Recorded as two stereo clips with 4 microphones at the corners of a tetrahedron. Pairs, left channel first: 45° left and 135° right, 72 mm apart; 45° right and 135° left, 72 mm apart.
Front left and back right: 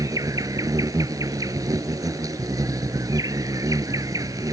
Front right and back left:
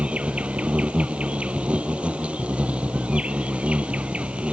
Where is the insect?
155° right.